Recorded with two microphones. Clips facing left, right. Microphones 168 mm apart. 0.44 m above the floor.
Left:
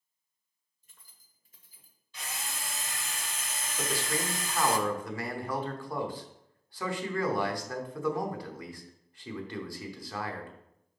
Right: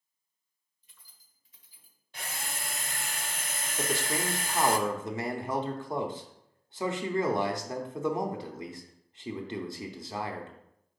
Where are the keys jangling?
45° left (ahead or behind), 1.2 m; by 2.0 s 40° left (ahead or behind), 1.6 m.